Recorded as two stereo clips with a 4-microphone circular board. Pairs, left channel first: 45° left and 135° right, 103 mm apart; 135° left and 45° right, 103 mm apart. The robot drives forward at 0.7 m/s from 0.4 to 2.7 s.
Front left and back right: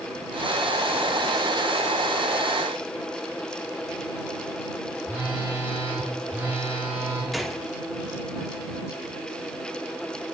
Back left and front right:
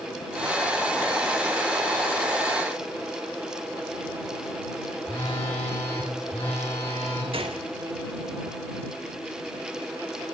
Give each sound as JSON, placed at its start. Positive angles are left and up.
{"t": 5.0, "sound": "a phone buzzing", "azimuth_deg": 155, "distance_m": 6.5}
{"t": 7.3, "sound": "a gunshot", "azimuth_deg": -45, "distance_m": 1.4}